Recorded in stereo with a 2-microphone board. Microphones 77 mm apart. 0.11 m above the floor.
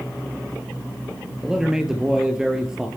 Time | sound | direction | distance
1.4 | a man speaking | 10° right (ahead or behind) | 2.5 m